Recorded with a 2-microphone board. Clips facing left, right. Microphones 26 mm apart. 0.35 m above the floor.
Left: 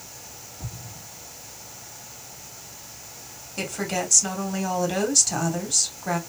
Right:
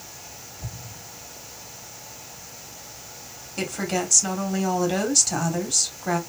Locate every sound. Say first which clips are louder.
0.6 s an explosion: even; 75° left (ahead or behind), 3 m
3.6 s a woman speaking: right 1 dB; 5° right (ahead or behind), 2 m